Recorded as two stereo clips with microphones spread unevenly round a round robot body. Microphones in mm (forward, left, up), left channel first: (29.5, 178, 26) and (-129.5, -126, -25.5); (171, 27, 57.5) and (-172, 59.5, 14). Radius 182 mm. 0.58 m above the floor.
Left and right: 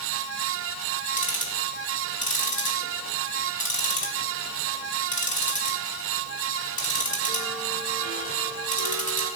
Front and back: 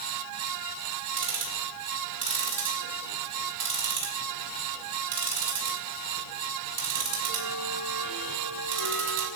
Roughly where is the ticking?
Behind left.